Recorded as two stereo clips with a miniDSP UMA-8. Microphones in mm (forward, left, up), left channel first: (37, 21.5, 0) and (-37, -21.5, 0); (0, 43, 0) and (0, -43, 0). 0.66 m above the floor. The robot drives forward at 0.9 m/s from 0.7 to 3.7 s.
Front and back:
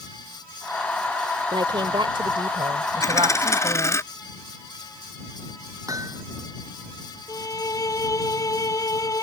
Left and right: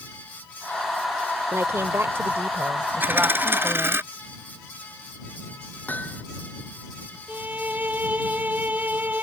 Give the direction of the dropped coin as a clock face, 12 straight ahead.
1 o'clock.